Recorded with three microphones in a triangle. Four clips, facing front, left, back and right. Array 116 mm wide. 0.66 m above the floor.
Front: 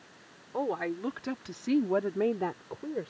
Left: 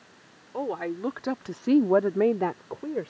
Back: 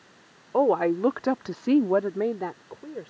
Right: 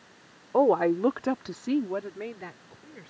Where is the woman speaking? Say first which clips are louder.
Right 9 dB, back 10 dB; 140° right; by 3.1 s 85° left.